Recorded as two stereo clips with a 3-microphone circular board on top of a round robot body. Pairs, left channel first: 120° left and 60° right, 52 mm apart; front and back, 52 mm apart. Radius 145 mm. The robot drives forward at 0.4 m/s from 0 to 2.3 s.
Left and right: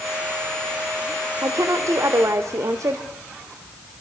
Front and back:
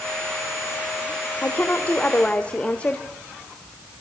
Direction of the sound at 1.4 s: 55° right.